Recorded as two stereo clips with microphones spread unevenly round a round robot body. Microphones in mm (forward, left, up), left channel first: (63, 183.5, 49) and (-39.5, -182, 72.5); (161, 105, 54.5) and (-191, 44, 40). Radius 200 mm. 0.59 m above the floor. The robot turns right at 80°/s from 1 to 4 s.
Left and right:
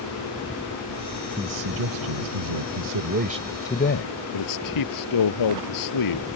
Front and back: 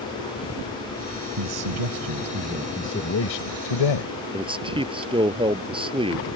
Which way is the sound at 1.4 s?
170° left.